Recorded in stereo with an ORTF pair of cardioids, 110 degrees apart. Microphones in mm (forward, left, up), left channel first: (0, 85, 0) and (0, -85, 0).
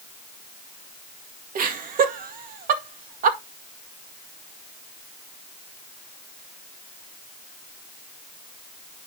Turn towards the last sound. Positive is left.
turn(degrees=-60)